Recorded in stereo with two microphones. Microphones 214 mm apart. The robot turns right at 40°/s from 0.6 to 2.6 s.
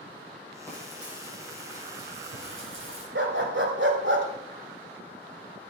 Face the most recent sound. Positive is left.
turn(degrees=-60)  # may be behind; listen again after turning